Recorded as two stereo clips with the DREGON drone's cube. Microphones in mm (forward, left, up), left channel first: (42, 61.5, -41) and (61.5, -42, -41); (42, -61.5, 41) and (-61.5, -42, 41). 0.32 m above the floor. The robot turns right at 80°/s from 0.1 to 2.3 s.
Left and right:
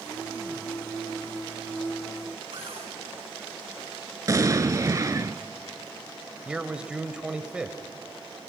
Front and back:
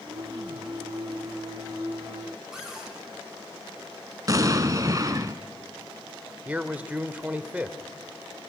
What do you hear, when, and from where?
2.5 s a cupboard door: 105° right, 5.5 m
4.3 s an explosion: 135° right, 1.0 m
6.5 s a man speaking: 140° right, 1.1 m